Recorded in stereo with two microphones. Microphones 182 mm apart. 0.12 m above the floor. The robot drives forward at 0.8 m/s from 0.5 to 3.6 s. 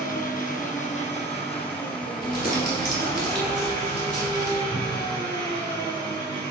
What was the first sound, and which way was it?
An engine running, 50° left (ahead or behind).